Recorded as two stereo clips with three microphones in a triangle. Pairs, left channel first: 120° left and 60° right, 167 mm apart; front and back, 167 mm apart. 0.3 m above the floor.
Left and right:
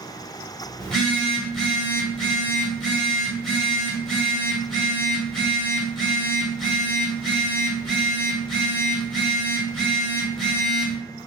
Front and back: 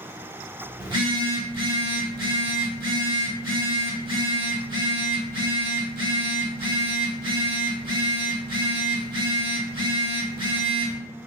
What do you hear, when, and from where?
0.8 s a phone buzzing: 155° right, 1.0 m